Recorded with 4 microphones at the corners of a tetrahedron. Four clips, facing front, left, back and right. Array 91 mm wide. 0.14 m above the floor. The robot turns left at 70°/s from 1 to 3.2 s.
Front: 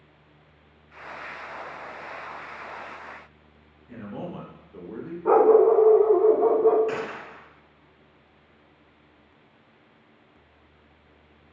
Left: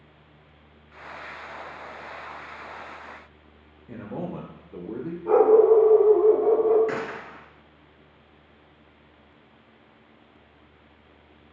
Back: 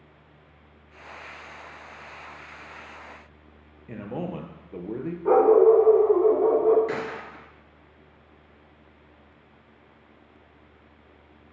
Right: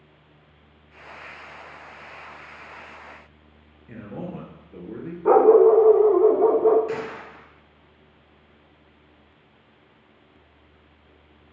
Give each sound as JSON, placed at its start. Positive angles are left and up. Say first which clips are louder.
{"t": 3.9, "sound": "a man speaking", "louder": "left 1 dB, back 3 dB", "azimuth_deg": 165, "distance_m": 2.5}
{"t": 5.2, "sound": "a dog barking", "louder": "right 3 dB, even", "azimuth_deg": -80, "distance_m": 4.0}
{"t": 6.9, "sound": "a gunshot", "louder": "even, even", "azimuth_deg": 110, "distance_m": 2.5}